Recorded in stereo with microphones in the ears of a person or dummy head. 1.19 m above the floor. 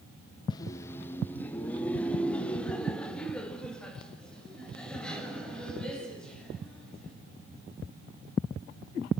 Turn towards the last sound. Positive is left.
turn(degrees=5)  # may be behind; listen again after turning